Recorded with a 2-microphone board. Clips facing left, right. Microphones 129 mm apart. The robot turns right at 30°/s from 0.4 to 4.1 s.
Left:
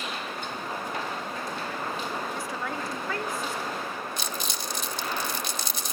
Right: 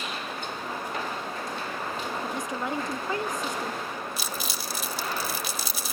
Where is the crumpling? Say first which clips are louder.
Even; 5° right (ahead or behind), 0.7 m.